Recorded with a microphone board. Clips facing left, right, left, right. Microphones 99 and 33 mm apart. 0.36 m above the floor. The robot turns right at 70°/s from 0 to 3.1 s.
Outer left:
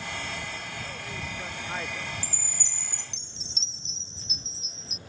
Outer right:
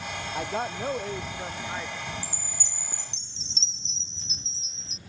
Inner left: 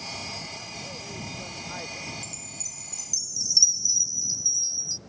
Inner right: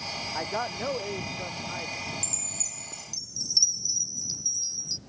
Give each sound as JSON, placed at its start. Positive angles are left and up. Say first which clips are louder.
{"t": 0.3, "sound": "a man speaking", "louder": "outer right 8 dB, inner right 7 dB", "azimuth_deg": -95}
{"t": 2.2, "sound": "a chime", "louder": "outer right 1 dB, inner right 2 dB", "azimuth_deg": -95}